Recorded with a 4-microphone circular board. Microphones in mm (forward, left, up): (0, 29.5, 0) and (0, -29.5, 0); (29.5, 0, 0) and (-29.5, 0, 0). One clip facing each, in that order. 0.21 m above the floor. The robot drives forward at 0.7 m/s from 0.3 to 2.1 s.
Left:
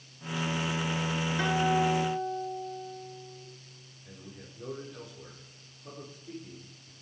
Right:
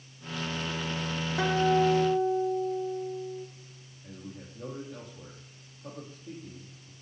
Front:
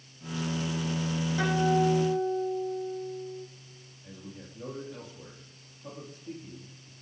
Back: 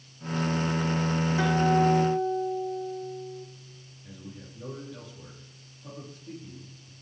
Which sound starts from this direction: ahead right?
A man speaking, at 4.0 s.